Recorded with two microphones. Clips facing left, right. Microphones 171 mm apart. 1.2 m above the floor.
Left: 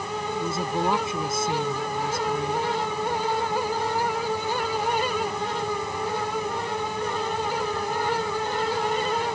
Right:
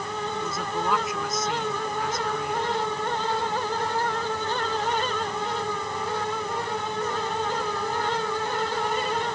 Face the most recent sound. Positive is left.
turn(degrees=30)  # may be behind; listen again after turning